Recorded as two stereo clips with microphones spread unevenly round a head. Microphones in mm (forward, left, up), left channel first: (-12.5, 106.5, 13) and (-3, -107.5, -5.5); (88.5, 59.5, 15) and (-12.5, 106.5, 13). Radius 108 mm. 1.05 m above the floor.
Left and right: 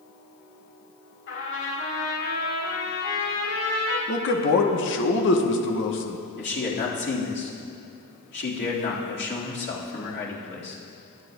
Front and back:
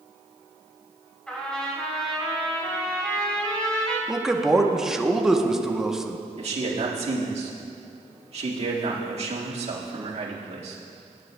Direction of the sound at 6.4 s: 135° left.